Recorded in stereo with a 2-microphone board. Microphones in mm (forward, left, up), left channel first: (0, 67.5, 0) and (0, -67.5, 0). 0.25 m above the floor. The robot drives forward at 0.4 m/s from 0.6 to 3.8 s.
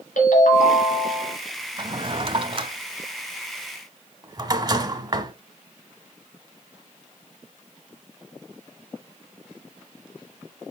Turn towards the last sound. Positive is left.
turn(degrees=-30)  # may be behind; listen again after turning